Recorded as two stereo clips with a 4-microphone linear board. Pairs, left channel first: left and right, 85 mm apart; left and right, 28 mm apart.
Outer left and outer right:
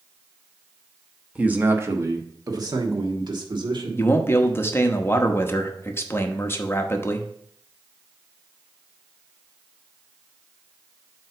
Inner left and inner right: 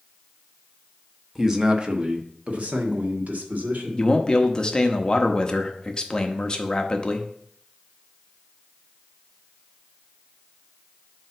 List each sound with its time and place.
1.4 s a man speaking: 15° right (ahead or behind), 0.9 m; by 4.1 s 65° right (ahead or behind), 2 m
4.0 s a man speaking: 30° left (ahead or behind), 0.8 m